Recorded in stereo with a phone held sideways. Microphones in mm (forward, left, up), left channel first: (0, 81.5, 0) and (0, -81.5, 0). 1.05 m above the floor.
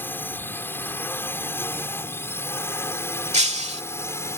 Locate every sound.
0.0 s a drone: 10° left (ahead or behind); by 4.4 s 15° left (ahead or behind)
3.3 s breaking glass: 40° right (ahead or behind)